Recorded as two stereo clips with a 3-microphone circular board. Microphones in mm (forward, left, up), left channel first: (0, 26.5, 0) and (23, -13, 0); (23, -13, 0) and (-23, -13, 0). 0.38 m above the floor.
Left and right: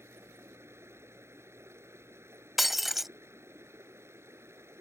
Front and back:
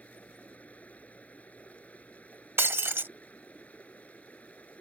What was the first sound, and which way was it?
Running water, 55° right.